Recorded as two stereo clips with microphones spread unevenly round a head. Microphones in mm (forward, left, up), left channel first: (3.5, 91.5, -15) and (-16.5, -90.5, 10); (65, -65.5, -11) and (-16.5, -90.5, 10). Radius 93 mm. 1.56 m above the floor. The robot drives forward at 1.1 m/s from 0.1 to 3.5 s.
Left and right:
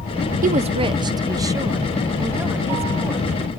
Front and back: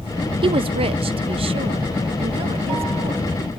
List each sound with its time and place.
0.4 s a woman speaking: 145° right; by 3.6 s 175° right